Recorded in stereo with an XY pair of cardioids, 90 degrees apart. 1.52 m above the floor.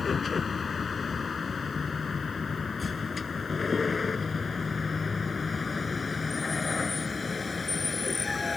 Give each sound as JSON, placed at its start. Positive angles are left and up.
{"t": 0.0, "sound": "a vehicle", "azimuth_deg": 40}